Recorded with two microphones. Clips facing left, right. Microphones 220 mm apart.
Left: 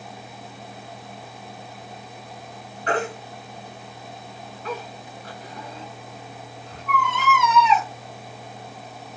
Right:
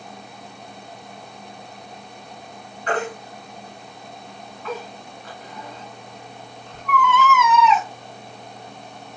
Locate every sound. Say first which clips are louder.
2.9 s a baby crying: even; 40° left (ahead or behind), 2.5 m